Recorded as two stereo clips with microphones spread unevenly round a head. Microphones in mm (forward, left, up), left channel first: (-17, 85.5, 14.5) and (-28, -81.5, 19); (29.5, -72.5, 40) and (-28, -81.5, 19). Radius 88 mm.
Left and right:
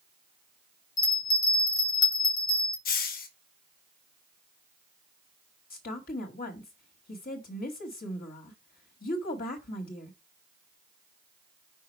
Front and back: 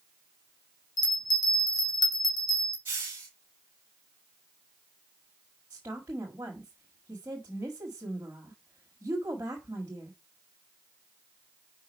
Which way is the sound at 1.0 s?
15° left.